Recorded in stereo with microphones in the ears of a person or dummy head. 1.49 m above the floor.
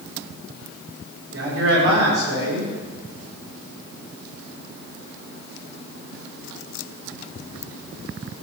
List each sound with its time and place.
1.3 s a man speaking: 65° right (ahead or behind), 6.5 m